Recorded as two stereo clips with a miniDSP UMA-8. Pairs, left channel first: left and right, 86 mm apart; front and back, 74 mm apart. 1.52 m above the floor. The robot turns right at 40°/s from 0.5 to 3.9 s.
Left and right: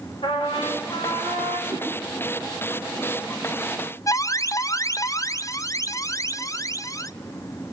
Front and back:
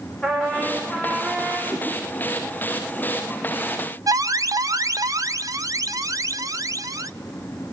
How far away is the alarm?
About 0.8 m.